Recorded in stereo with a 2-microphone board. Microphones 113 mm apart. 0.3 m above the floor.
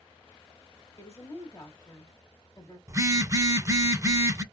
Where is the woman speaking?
30° left (ahead or behind), 1.3 m.